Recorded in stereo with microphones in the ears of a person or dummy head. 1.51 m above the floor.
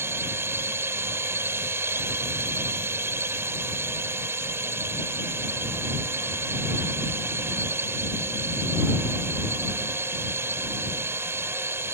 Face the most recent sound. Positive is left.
turn(degrees=-15)  # may be behind; listen again after turning